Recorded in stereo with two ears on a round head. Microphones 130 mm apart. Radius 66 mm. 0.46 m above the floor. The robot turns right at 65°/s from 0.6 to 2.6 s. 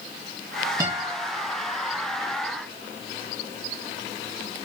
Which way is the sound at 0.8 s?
20° right (ahead or behind).